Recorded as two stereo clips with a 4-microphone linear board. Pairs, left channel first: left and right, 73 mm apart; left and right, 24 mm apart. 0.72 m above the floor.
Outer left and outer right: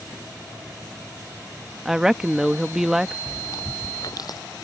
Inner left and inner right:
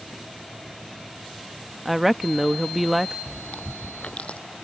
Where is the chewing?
60° left (ahead or behind).